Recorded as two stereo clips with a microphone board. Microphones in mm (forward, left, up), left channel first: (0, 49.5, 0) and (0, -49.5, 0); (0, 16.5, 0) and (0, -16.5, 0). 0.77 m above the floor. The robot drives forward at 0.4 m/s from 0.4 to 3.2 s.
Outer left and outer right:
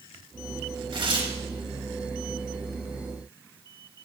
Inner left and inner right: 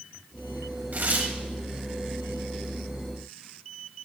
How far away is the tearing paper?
About 1.6 m.